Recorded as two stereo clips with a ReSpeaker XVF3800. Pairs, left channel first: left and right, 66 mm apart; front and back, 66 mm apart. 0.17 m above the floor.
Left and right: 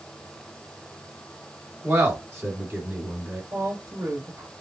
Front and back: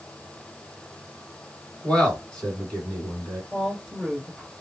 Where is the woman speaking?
90° right, 2.5 m.